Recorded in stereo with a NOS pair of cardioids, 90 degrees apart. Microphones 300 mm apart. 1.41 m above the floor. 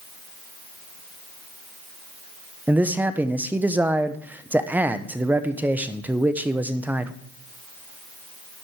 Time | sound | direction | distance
2.7 | a man speaking | 5° right | 1.0 m